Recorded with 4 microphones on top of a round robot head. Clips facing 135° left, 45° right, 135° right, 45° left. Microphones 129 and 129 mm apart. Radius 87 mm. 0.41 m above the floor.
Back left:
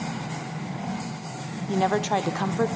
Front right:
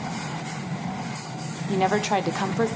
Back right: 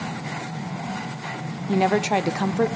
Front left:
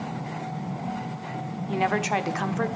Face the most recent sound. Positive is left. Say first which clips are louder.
# front right 1 dB, back right 5 dB
turn(degrees=-130)